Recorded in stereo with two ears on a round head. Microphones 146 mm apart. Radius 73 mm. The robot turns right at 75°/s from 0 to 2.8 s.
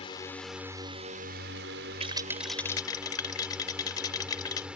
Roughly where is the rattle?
Ahead right.